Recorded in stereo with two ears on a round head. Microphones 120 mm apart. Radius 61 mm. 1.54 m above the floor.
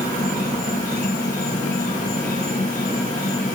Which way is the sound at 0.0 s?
60° left (ahead or behind).